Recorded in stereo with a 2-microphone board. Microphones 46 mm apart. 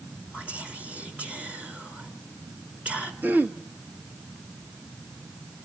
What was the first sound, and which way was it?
Whispering, 30° right (ahead or behind).